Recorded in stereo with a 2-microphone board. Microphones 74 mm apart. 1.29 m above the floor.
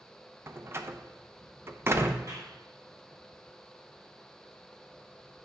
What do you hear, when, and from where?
0.5 s a door slam: 40° right (ahead or behind), 0.6 m
2.3 s a clap: 55° right (ahead or behind), 2 m